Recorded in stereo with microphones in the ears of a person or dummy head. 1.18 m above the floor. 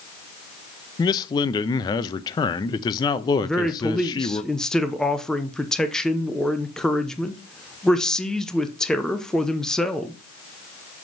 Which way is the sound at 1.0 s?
25° left (ahead or behind).